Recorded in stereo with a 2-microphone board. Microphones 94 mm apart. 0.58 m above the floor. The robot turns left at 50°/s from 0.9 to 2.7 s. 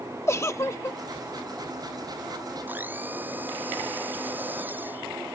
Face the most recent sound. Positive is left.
turn(degrees=-20)  # may be behind; listen again after turning